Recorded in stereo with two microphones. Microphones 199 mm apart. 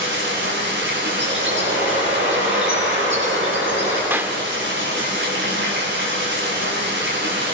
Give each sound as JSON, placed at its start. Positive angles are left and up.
{"t": 0.0, "sound": "running water", "side_deg": -65, "distance_m": 7.5}
{"t": 1.2, "sound": "a bird", "side_deg": -75, "distance_m": 8.5}
{"t": 4.1, "sound": "a clap", "side_deg": -10, "distance_m": 0.6}